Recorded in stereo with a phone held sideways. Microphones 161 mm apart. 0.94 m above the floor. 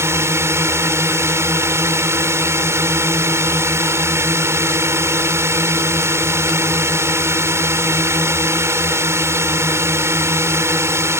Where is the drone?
15° right (ahead or behind).